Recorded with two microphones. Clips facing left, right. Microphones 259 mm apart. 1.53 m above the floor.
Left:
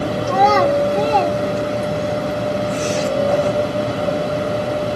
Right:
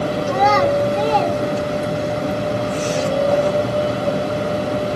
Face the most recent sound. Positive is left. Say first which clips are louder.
# left 2 dB
turn(degrees=50)  # may be behind; listen again after turning